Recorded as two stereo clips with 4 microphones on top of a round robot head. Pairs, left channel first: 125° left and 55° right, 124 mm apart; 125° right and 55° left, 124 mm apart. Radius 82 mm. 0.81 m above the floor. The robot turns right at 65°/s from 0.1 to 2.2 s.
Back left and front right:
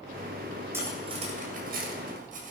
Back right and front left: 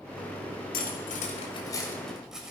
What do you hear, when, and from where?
0.7 s cutlery clinking: 125° right, 2 m; by 2.5 s 30° right, 2 m